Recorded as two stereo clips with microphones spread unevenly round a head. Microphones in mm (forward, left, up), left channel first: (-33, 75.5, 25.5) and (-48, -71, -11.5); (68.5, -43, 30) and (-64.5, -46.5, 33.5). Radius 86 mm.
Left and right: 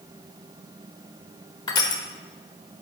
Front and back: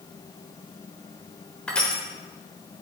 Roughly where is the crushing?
Left.